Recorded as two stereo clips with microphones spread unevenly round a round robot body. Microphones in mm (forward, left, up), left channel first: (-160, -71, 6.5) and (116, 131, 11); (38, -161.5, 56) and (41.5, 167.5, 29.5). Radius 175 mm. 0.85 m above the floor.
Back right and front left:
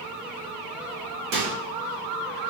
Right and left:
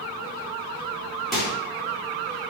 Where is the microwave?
Straight ahead, 2.5 m.